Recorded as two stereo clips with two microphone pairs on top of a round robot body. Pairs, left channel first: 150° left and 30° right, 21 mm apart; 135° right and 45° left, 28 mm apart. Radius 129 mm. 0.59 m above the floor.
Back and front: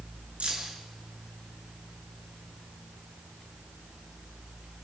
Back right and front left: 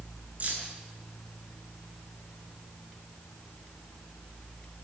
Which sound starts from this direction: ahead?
Keys jangling, at 0.4 s.